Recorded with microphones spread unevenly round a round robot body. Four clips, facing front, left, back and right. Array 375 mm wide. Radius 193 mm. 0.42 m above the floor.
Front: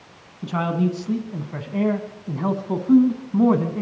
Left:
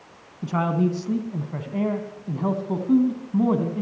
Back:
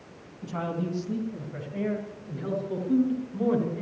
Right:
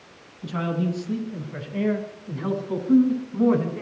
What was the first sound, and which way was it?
A man speaking, 45° left.